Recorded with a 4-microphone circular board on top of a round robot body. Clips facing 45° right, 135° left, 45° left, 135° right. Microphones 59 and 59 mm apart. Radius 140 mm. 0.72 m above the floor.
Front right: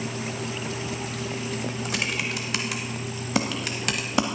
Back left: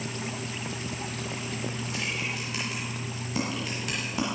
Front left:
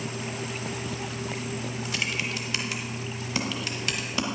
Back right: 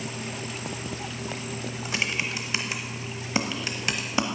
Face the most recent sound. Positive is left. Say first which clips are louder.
# front right 4 dB, back right 3 dB
turn(degrees=-70)